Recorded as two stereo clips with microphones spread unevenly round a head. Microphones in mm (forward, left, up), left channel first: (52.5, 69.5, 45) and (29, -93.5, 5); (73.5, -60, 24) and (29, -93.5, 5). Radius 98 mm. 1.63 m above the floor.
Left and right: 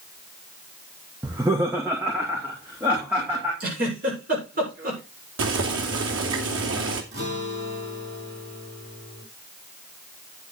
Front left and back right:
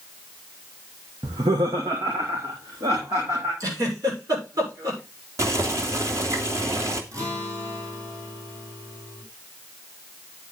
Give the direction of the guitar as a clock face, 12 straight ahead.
4 o'clock.